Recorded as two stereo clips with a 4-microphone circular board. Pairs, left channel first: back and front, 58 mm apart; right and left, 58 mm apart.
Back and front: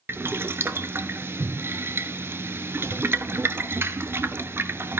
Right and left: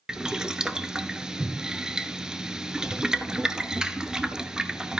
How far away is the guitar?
I don't hear a guitar.